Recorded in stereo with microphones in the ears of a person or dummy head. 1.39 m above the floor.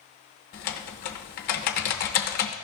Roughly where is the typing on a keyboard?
Left.